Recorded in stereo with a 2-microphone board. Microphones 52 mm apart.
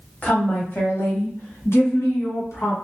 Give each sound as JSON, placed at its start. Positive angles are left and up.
{"t": 0.2, "sound": "a woman speaking", "side_deg": 30, "distance_m": 1.1}